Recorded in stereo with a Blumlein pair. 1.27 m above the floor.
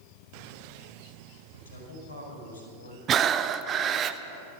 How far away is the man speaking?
About 5 m.